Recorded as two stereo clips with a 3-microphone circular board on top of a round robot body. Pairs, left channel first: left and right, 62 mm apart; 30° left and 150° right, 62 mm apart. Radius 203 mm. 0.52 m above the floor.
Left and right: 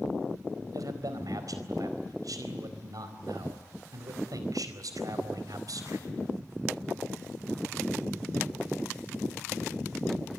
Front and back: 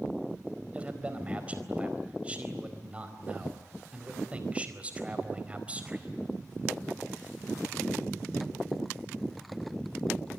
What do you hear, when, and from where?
0.7 s a man speaking: 80° right, 4.5 m